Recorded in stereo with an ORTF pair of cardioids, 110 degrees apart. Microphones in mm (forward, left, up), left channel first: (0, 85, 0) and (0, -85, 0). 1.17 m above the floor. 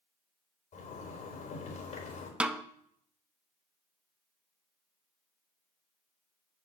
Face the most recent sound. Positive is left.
turn(degrees=-5)